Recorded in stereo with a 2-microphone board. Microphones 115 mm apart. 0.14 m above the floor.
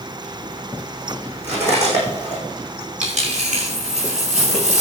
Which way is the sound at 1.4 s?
70° right (ahead or behind).